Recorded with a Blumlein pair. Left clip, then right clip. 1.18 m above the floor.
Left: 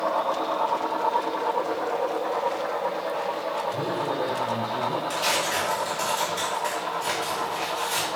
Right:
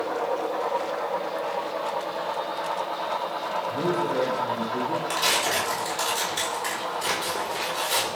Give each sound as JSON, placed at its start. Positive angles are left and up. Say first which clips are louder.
{"t": 3.7, "sound": "a man speaking", "louder": "right 2 dB", "azimuth_deg": -35, "distance_m": 6.0}
{"t": 5.1, "sound": "tearing paper", "louder": "right 3 dB", "azimuth_deg": -25, "distance_m": 5.5}